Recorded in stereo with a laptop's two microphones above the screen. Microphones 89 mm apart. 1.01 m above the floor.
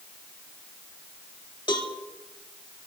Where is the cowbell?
60° left (ahead or behind), 1.7 m.